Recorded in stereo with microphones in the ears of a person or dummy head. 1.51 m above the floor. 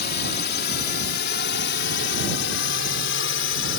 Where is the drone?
55° left (ahead or behind); by 3.8 s 70° left (ahead or behind).